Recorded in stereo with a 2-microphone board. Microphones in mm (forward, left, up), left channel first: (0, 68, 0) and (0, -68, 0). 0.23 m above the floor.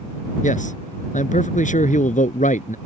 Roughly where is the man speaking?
Left.